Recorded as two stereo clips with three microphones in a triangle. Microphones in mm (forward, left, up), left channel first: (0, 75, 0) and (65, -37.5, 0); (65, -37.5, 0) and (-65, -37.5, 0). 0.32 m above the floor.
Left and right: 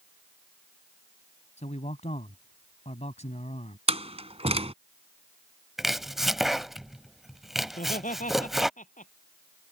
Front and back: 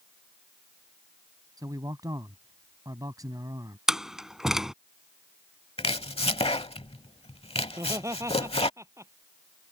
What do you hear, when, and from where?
1.6 s a man speaking: 125° left
3.9 s a door slam: 95° right
5.8 s chopping: 30° left
7.7 s laughter: 115° left